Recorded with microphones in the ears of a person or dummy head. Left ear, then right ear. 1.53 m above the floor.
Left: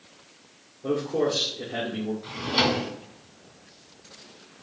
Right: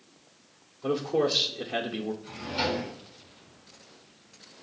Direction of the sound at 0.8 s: 65° right (ahead or behind).